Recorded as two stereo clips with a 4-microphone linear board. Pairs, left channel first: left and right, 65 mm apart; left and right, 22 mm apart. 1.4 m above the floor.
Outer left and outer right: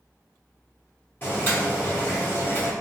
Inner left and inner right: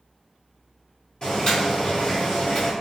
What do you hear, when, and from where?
1.2 s boiling: 35° left (ahead or behind), 1.4 m